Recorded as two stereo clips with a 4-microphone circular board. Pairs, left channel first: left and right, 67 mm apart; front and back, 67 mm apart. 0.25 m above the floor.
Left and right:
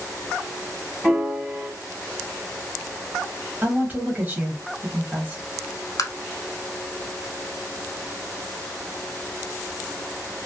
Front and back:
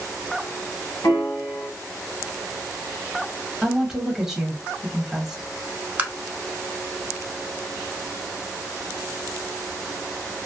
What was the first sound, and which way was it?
A piano, 10° right.